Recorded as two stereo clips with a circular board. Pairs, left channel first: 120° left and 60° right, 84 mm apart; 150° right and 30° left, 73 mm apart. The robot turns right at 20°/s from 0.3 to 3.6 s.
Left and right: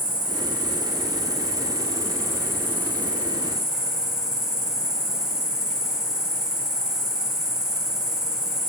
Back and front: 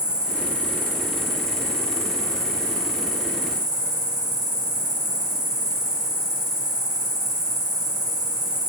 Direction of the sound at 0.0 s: 45° right.